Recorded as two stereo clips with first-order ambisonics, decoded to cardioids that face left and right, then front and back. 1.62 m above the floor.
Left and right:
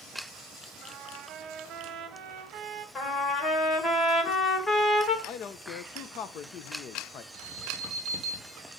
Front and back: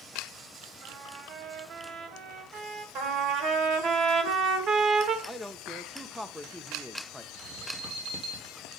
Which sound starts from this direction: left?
A man speaking, at 5.2 s.